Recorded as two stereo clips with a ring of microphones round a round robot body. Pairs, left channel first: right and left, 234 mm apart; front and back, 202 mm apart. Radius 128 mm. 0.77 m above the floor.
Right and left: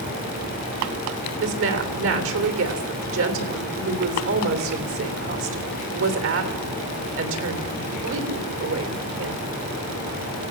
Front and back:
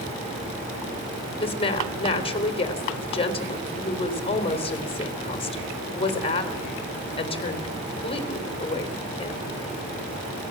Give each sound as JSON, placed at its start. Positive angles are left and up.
{"t": 1.4, "sound": "a woman speaking", "azimuth_deg": 60, "distance_m": 3.5}